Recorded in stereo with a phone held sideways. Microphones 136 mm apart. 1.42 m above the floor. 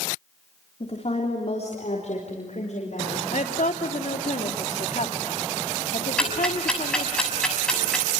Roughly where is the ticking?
Centre.